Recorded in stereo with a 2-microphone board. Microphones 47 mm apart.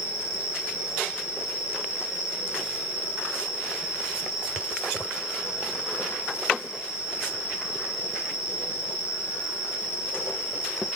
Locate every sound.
0.0 s an insect: 10° left (ahead or behind), 2.5 m